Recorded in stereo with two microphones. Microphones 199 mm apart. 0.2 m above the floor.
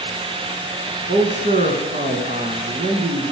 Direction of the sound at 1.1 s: 40° right (ahead or behind).